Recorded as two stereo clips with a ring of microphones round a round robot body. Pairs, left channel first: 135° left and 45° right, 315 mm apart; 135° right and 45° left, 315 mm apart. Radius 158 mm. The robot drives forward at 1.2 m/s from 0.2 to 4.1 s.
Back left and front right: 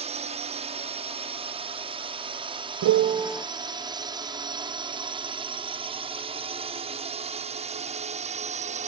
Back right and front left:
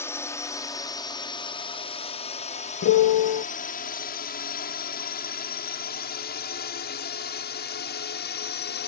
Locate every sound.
0.0 s a drone: 65° right; by 8.9 s 100° right
2.8 s a piano: 80° right; by 3.5 s 140° right